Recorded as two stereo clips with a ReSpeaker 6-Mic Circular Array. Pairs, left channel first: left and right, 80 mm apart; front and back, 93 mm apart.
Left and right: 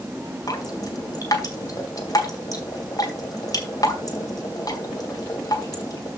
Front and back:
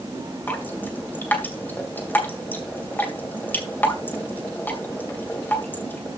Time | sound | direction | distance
0.5 | dripping | 65° left | 2 m